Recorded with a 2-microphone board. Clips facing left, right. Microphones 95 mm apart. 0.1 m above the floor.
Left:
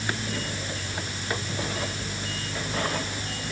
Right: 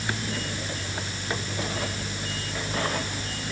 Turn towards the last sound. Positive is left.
No sound to turn to.